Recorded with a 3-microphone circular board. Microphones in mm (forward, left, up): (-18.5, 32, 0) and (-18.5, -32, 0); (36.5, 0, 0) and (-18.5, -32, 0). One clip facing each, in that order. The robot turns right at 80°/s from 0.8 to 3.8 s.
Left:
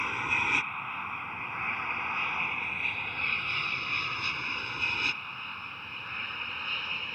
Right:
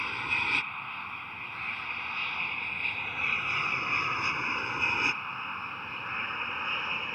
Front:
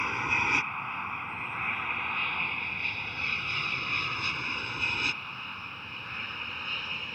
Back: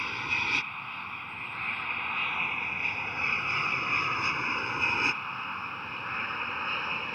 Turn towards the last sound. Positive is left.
turn(degrees=-135)